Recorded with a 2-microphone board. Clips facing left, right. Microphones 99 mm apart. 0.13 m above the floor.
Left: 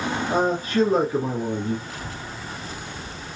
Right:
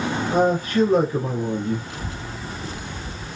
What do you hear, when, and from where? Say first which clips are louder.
0.3 s a man speaking: right 3 dB; 30° left (ahead or behind), 3.5 m
1.9 s a child speaking: right 2 dB; 25° right (ahead or behind), 1.1 m